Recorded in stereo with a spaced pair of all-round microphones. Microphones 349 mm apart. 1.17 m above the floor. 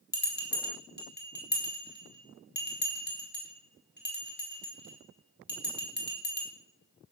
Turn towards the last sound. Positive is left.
turn(degrees=30)  # may be behind; listen again after turning